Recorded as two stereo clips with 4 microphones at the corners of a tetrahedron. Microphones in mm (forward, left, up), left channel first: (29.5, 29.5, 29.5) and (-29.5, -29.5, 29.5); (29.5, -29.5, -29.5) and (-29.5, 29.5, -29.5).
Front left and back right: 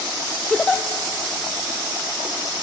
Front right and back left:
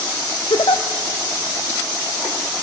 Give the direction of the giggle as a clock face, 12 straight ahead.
1 o'clock.